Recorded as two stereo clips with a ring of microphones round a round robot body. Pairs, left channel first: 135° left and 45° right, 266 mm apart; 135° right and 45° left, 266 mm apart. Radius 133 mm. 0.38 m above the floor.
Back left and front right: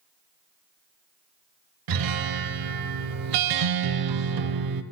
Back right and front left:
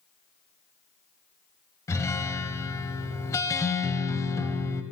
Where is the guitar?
55° right, 0.5 m.